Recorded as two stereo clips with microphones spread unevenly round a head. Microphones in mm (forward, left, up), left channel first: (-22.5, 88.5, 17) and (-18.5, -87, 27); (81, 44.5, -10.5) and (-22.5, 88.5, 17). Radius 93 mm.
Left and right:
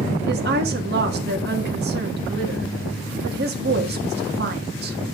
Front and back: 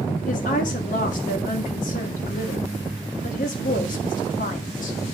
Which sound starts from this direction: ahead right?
A woman speaking, at 0.3 s.